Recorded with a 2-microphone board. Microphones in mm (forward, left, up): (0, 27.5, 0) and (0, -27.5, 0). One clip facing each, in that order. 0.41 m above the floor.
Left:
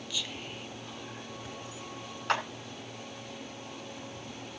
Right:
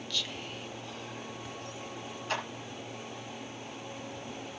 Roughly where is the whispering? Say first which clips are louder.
Right 1 dB; centre.